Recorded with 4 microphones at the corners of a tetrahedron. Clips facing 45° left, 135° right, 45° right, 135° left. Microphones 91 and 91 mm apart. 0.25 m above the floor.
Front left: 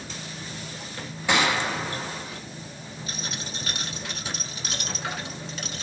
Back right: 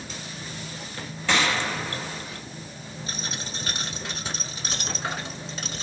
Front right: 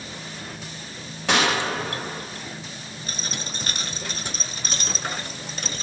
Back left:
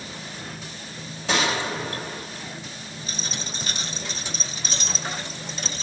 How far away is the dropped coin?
About 0.9 m.